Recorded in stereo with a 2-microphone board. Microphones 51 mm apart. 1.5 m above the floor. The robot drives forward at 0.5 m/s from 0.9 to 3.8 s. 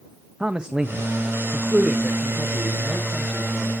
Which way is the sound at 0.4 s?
15° right (ahead or behind).